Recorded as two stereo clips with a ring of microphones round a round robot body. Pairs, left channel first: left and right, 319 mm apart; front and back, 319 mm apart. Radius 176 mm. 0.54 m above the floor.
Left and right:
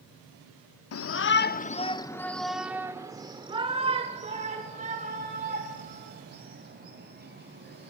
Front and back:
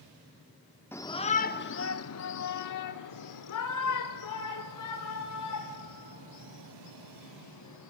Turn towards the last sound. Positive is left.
turn(degrees=-30)